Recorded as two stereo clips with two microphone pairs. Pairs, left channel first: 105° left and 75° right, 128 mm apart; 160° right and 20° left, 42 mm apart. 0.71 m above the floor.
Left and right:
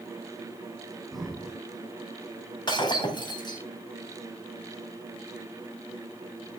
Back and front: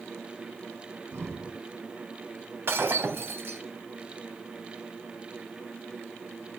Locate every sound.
1.1 s breathing: 15° left, 2.5 m
2.7 s breaking glass: 50° left, 3 m